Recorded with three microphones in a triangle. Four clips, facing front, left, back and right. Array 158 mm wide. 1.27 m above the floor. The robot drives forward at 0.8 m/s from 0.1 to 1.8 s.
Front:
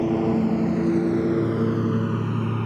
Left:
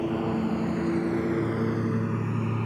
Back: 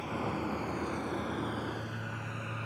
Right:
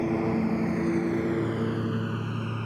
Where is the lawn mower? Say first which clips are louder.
Right 1 dB, front 14 dB; 10° right; by 2.7 s 20° left.